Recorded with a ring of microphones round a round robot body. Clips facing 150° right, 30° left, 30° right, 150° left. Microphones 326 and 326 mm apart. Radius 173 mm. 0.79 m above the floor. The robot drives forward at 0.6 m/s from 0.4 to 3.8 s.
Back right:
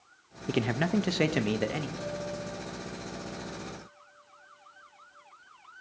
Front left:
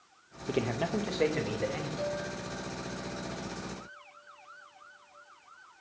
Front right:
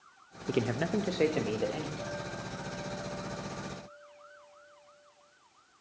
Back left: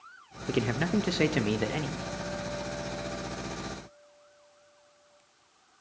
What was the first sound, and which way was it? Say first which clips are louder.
A man speaking: back right 3 dB, back left 2 dB; 125° right.